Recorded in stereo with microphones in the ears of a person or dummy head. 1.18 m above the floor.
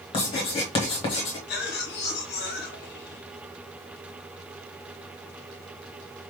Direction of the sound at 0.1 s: 25° left (ahead or behind).